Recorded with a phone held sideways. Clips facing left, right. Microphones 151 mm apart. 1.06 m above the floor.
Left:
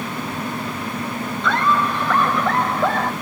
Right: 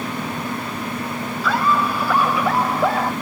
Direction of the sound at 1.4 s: 5° right (ahead or behind).